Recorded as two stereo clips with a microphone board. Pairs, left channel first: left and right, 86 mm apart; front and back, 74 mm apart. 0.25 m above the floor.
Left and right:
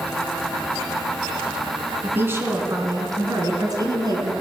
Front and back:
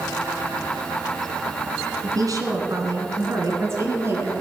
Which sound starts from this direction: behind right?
A woman speaking, at 2.0 s.